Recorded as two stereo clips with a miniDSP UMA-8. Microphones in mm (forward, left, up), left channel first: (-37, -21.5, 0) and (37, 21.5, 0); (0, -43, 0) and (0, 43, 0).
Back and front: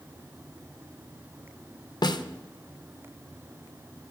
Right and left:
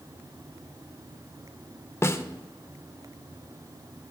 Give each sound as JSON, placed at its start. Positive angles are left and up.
{"t": 2.0, "sound": "a snare drum", "azimuth_deg": -145, "distance_m": 0.5}